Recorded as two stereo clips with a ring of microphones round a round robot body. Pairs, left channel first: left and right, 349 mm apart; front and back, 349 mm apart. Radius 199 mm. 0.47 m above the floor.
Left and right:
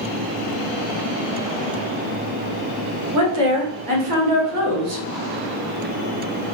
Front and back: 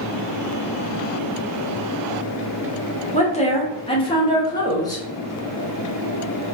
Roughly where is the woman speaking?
Ahead right.